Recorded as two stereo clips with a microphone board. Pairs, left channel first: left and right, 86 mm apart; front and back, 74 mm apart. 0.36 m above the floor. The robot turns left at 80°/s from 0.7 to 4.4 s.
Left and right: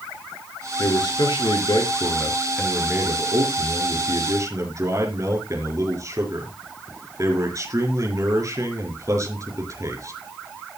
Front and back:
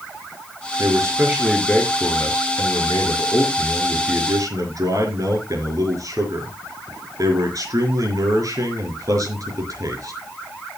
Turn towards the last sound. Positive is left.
turn(degrees=-140)